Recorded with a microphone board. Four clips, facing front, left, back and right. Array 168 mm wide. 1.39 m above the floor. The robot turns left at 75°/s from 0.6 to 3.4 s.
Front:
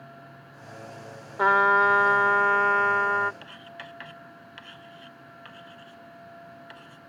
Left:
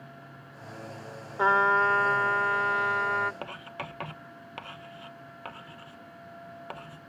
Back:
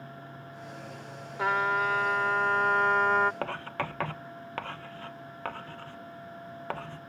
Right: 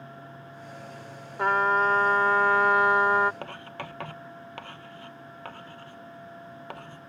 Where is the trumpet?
30° left; by 3.3 s 115° right.